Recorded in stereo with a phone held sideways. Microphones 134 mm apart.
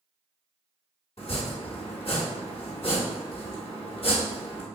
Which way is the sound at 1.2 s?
50° left (ahead or behind).